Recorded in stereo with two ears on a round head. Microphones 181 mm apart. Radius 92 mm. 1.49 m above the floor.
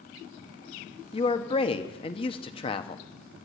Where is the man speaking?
25° left (ahead or behind), 1.1 m.